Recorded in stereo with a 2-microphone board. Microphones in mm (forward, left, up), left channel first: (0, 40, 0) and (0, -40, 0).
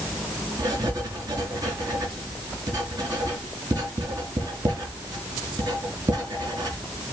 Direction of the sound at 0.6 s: 55° right (ahead or behind).